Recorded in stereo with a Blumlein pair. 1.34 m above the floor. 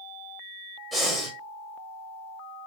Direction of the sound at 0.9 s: 5° right.